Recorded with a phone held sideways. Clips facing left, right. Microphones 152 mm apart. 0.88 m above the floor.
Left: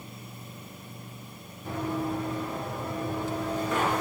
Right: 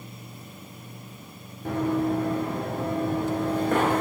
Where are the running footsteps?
60° right (ahead or behind), 6 m; by 4.0 s 50° right (ahead or behind), 4.5 m.